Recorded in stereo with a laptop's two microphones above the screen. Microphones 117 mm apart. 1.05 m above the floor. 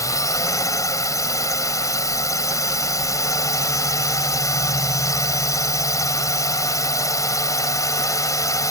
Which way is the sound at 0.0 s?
30° left (ahead or behind).